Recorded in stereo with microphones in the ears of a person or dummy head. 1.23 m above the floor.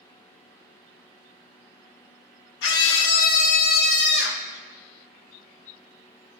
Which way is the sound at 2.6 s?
65° left (ahead or behind).